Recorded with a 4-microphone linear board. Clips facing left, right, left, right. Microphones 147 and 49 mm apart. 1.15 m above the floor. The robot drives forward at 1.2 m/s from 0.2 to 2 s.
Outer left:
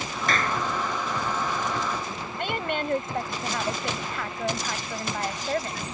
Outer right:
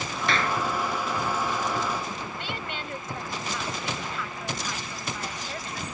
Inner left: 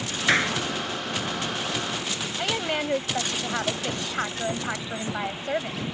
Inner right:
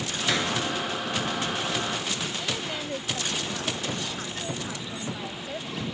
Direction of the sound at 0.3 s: 45° left (ahead or behind).